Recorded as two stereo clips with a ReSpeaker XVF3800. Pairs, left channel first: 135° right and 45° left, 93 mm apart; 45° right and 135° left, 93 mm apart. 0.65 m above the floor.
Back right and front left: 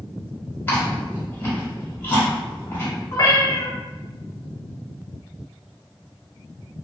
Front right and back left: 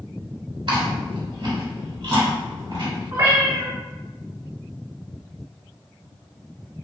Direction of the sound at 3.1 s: 175° left.